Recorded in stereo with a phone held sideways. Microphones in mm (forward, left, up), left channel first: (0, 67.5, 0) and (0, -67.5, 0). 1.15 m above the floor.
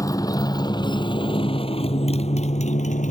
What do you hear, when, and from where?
0.0 s a motorcycle: 25° left (ahead or behind); by 3.1 s 65° left (ahead or behind)